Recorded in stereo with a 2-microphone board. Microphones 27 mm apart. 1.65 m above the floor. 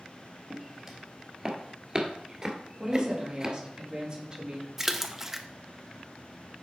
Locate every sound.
0.5 s footsteps: 15° right (ahead or behind), 2 m; by 3.5 s 25° right (ahead or behind), 1.8 m
2.8 s a woman speaking: 25° right (ahead or behind), 2.5 m
4.8 s a splash: 10° right (ahead or behind), 0.6 m